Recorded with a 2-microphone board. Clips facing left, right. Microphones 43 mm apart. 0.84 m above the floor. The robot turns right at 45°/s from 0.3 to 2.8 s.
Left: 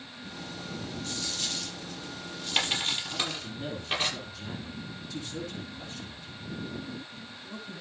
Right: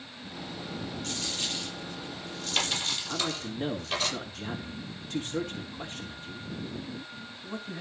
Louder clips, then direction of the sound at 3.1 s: Right 2 dB; 45° right (ahead or behind).